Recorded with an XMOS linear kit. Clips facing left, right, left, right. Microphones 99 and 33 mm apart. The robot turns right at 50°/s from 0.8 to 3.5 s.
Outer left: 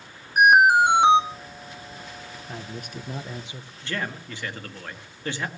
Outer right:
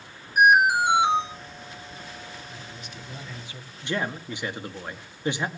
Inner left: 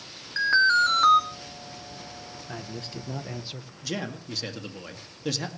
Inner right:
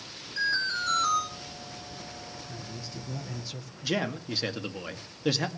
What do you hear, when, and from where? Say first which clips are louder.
0.4 s an alarm: outer left 3 dB, inner left 9 dB; 50° left (ahead or behind), 2.5 m; by 1.2 s 70° left (ahead or behind), 2.5 m
2.5 s a man speaking: outer left 5 dB, inner left 4 dB; 110° left, 1.2 m; by 3.7 s 160° left, 1.2 m
3.8 s a man speaking: outer right 3 dB, inner right 3 dB; 15° right (ahead or behind), 1.9 m